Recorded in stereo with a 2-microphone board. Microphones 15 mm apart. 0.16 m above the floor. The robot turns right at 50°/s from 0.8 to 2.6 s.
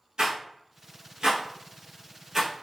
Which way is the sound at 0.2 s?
70° right (ahead or behind).